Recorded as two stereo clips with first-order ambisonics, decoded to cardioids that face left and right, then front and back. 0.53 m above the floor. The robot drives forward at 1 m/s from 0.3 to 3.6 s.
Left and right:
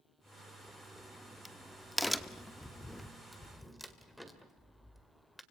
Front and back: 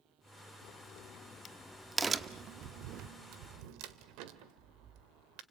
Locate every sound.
0.6 s a crack: straight ahead, 1.5 m; by 5.4 s straight behind, 2.0 m